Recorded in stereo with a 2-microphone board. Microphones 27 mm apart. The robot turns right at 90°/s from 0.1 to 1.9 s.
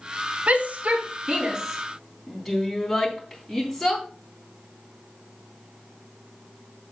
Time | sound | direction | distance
0.5 | a shout | 45° right (ahead or behind) | 3.5 m